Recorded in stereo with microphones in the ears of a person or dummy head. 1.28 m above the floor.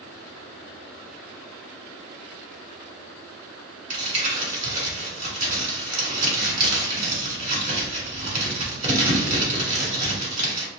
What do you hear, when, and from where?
3.9 s crumpling: 50° right (ahead or behind), 2.5 m